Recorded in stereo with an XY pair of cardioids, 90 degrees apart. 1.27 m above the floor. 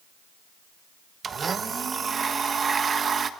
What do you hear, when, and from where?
1.2 s a blender: 45° right, 1.3 m